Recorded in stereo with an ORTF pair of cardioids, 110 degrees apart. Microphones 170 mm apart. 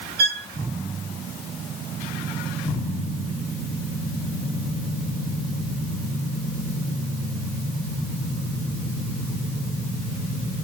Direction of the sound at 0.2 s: 65° right.